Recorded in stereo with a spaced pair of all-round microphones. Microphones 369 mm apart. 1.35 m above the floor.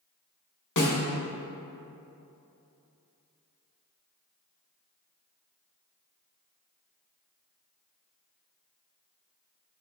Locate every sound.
0.8 s a snare drum: 50° left (ahead or behind), 0.9 m